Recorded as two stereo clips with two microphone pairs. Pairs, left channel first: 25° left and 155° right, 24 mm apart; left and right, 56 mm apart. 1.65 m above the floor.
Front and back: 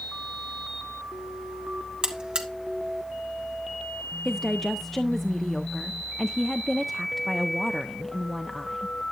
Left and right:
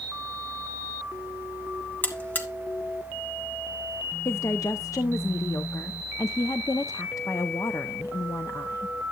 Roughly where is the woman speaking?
Left.